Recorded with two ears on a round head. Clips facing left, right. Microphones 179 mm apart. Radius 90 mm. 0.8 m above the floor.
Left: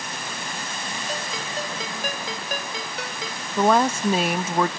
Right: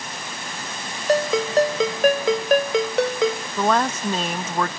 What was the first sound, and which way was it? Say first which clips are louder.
A ringtone: right 16 dB; 55° right (ahead or behind).